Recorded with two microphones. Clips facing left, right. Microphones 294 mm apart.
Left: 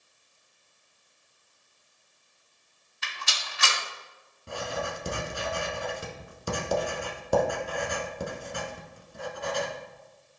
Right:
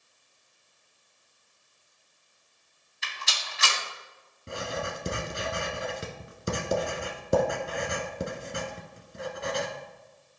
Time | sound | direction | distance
3.0 | a rattle | 65° left (ahead or behind) | 2 m
4.5 | writing | 25° right (ahead or behind) | 1.1 m